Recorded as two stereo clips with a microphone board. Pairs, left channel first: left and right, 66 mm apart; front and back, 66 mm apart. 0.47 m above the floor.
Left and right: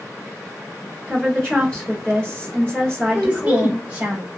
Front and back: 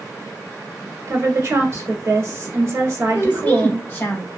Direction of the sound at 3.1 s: 35° right.